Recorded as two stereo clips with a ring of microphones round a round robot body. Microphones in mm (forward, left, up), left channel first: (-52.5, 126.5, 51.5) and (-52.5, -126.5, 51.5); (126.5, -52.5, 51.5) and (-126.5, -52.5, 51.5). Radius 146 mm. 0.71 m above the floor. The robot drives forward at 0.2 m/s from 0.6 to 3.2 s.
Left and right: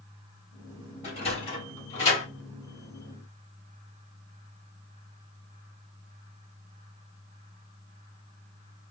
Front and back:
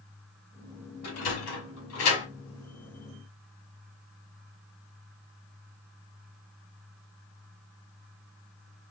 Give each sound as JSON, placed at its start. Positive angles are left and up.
{"t": 1.0, "sound": "a sliding door", "azimuth_deg": 25, "distance_m": 2.5}